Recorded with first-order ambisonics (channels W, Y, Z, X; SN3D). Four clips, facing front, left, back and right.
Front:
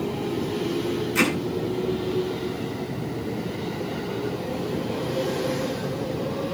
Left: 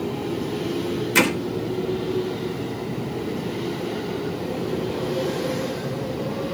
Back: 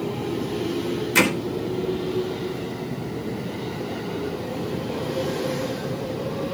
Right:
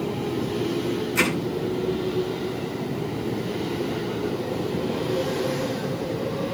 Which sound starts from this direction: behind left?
Hammering, at 1.1 s.